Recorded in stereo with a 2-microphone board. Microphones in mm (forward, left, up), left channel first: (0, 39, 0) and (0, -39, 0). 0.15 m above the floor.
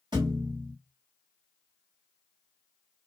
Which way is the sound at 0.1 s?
75° right (ahead or behind).